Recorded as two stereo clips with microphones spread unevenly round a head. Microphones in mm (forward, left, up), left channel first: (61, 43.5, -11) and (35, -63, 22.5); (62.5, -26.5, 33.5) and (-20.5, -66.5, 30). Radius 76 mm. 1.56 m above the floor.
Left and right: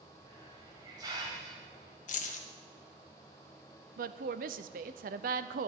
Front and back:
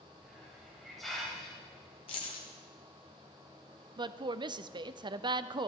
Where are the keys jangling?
70° left, 1.0 m.